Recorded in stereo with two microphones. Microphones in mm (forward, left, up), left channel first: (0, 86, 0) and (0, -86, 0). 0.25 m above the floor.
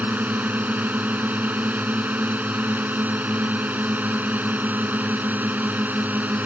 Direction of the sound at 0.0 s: 10° right (ahead or behind).